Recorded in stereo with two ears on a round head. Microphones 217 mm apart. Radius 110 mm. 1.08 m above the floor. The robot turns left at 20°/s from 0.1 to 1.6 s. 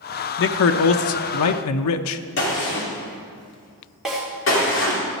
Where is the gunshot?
55° left (ahead or behind), 2.5 m.